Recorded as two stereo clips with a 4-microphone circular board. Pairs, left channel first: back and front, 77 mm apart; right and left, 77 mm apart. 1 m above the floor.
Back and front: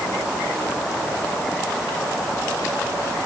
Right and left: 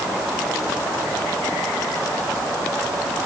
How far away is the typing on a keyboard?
I don't hear typing on a keyboard.